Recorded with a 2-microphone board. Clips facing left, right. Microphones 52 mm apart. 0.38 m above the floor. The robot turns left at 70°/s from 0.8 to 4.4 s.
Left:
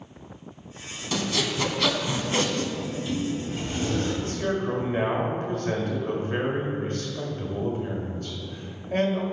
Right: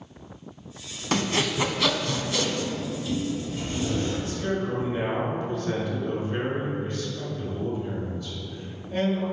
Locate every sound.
1.1 s sawing: 130° right, 0.6 m; by 2.6 s 125° left, 0.6 m
2.8 s a sliding door: 175° right, 1.6 m; by 4.1 s 90° left, 1.6 m
4.2 s a man speaking: 45° left (ahead or behind), 1.7 m